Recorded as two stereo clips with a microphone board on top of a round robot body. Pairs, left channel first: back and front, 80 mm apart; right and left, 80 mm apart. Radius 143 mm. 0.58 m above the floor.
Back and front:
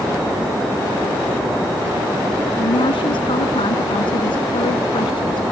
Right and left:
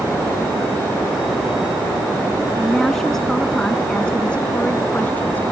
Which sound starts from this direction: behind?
A woman speaking, at 2.6 s.